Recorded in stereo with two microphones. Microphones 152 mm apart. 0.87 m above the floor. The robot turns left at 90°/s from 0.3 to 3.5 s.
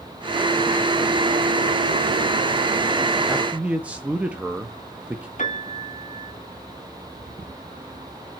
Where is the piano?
55° left (ahead or behind), 1.7 m.